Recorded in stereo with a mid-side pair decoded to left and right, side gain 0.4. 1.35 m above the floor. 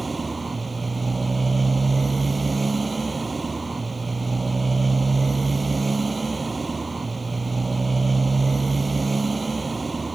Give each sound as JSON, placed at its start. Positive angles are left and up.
{"t": 0.0, "sound": "a motorcycle", "azimuth_deg": -25}